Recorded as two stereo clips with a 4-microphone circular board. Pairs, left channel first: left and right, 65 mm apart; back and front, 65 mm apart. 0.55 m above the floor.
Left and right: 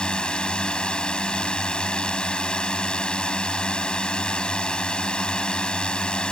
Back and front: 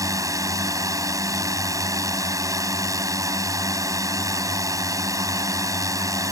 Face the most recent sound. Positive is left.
turn(degrees=15)